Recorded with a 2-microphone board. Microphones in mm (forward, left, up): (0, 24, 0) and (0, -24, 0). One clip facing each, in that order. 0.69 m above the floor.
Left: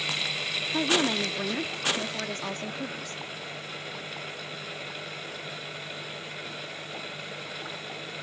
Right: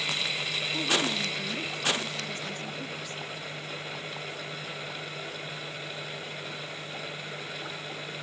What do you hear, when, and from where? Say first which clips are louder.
0.7 s a woman speaking: left 4 dB; 50° left (ahead or behind), 1.2 m